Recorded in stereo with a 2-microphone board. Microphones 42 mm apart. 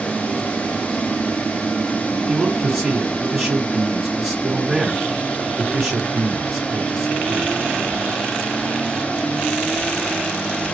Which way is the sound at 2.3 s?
5° right (ahead or behind).